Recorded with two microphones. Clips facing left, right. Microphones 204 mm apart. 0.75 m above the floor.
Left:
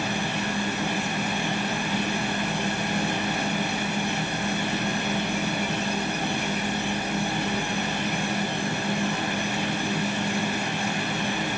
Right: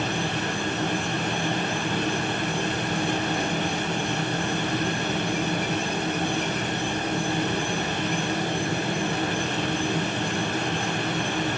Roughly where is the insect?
Right.